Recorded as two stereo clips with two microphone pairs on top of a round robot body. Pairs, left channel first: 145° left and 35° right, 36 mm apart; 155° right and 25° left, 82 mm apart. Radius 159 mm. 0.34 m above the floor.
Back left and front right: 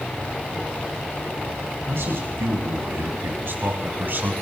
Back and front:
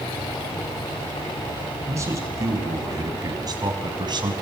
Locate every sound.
1.9 s a man speaking: 30° right, 3.5 m; by 4.3 s 5° right, 3 m